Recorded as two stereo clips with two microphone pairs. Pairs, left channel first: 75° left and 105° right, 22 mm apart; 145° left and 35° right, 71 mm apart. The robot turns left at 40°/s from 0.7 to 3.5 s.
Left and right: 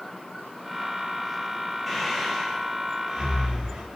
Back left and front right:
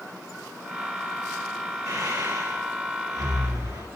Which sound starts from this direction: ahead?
Breathing, at 1.9 s.